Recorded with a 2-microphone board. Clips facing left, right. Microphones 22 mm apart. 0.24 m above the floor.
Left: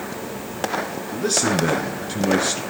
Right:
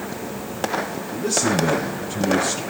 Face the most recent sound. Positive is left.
turn(degrees=50)  # may be behind; listen again after turning